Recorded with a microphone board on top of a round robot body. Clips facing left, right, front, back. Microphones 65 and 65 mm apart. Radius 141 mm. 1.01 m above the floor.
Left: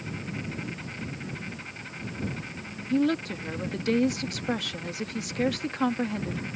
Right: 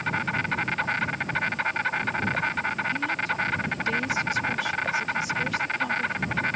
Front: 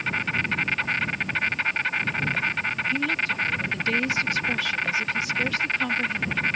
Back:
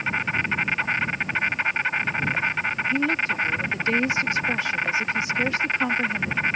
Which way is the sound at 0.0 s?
105° right.